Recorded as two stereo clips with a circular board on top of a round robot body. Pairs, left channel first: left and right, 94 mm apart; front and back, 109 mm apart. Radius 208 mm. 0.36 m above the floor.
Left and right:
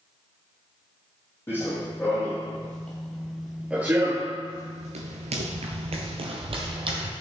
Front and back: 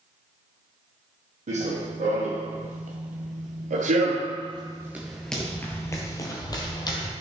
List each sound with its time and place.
1.5 s running footsteps: 160° left, 1.8 m; by 7.1 s 55° right, 1.5 m